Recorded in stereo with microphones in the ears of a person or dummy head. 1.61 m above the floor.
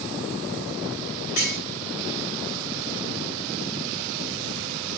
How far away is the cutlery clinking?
About 3.5 m.